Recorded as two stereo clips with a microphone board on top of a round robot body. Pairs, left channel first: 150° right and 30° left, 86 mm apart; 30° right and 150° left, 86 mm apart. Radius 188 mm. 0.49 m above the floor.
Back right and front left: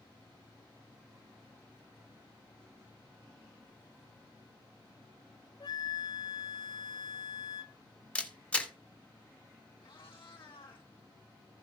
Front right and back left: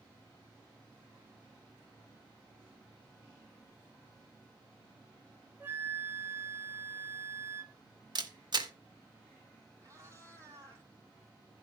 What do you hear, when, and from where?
5.6 s a flute: 150° right, 1.0 m
8.2 s a camera shutter: 135° left, 2.0 m
9.8 s a cat meowing: 155° right, 4 m